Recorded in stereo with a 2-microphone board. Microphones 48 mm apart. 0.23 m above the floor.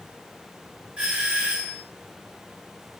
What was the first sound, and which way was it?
A doorbell, 20° right (ahead or behind).